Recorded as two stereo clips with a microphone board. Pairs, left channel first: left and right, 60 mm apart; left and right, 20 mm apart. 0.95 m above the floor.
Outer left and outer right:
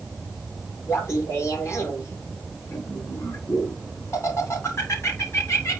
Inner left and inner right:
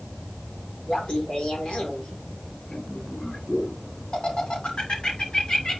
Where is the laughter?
50° left (ahead or behind), 2.5 m.